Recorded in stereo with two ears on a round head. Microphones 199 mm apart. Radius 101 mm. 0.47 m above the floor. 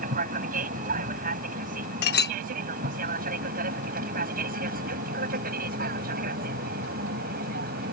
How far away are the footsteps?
I don't hear footsteps.